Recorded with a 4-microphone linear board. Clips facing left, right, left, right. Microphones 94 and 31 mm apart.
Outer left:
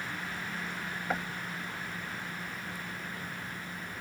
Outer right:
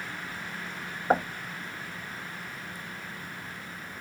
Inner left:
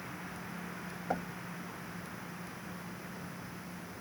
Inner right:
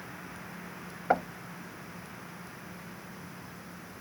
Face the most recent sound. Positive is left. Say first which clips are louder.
# outer right 10 dB, inner right 9 dB
turn(degrees=-45)  # may be behind; listen again after turning